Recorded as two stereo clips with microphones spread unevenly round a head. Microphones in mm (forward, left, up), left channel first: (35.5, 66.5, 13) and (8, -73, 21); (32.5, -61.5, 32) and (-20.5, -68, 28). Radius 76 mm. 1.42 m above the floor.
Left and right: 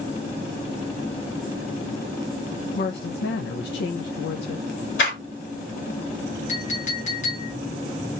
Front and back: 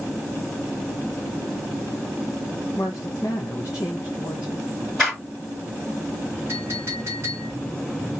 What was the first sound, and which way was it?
A woman speaking, 75° left.